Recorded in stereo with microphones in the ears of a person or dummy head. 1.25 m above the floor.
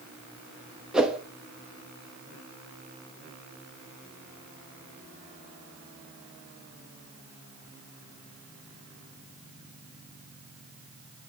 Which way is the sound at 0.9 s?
5° right (ahead or behind).